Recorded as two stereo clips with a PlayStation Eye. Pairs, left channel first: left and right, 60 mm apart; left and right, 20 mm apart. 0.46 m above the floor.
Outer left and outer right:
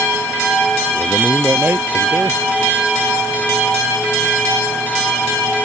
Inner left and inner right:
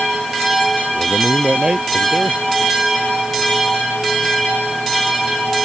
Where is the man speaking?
35° right (ahead or behind).